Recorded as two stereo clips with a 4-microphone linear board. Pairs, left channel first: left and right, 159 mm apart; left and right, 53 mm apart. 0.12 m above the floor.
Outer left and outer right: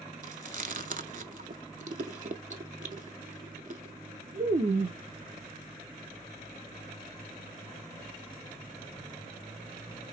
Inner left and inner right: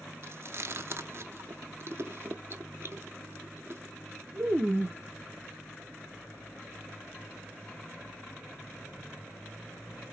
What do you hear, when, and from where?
0.2 s chewing: 55° right (ahead or behind), 0.6 m